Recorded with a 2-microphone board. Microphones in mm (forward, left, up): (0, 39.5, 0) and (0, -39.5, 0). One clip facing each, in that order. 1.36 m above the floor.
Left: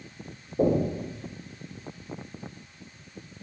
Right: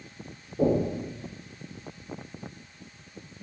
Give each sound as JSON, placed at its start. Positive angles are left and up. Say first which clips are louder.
{"t": 0.6, "sound": "knocking", "louder": "left 1 dB", "side_deg": 25, "distance_m": 3.0}